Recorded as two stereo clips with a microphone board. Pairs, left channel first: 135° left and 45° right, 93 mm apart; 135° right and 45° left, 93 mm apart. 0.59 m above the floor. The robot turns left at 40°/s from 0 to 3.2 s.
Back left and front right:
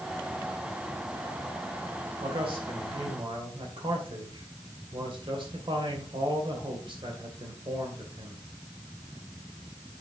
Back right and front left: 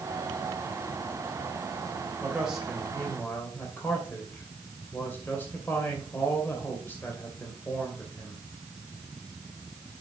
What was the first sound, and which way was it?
A man speaking, 25° right.